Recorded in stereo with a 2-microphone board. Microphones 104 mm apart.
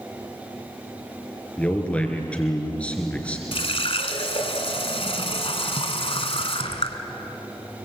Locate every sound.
1.6 s a man speaking: 10° left (ahead or behind), 3.5 m
3.5 s a running tap: 65° left (ahead or behind), 1.8 m